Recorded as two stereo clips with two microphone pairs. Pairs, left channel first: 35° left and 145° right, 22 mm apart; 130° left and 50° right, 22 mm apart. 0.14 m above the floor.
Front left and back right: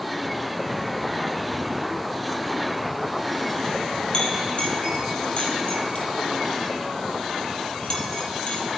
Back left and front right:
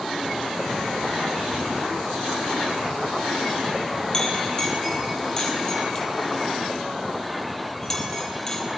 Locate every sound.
4.1 s a clink: 70° left, 3 m